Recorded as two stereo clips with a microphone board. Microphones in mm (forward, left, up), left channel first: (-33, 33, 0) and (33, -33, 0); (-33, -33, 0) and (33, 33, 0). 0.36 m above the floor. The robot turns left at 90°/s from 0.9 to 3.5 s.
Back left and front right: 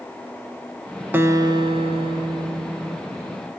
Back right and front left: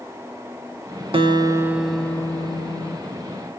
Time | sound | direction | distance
1.1 | a guitar | 25° left | 0.6 m